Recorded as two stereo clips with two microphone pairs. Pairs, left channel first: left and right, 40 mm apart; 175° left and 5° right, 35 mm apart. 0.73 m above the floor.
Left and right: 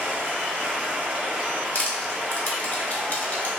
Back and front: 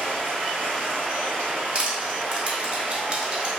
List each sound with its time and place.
0.0 s running water: 40° right, 1.4 m
1.8 s crushing: 50° left, 0.7 m